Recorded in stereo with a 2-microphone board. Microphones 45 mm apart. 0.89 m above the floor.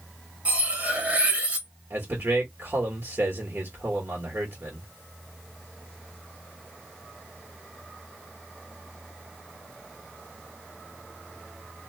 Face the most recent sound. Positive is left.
turn(degrees=-55)  # may be behind; listen again after turning